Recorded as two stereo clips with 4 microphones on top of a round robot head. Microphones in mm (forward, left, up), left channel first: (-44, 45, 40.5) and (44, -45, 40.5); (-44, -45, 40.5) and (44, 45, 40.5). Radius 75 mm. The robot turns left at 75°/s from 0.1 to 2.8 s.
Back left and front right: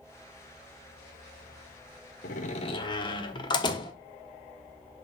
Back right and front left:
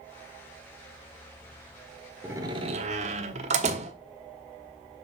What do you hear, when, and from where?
2.2 s a door slam: 120° left, 1.0 m; by 3.9 s 80° left, 1.0 m